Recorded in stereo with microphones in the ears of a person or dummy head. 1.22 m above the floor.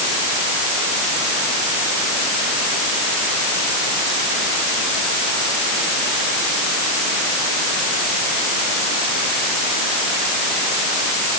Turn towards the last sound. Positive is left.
No sound to turn to.